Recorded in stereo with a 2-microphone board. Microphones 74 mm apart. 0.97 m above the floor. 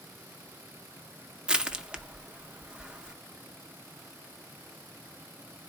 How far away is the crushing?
About 0.5 m.